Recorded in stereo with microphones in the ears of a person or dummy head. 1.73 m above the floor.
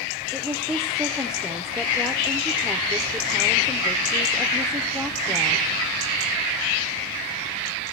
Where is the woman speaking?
5° right (ahead or behind), 0.7 m.